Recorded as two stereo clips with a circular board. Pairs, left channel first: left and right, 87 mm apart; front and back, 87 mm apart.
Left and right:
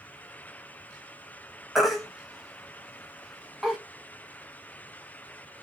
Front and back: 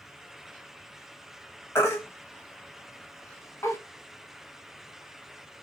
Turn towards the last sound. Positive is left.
turn(degrees=0)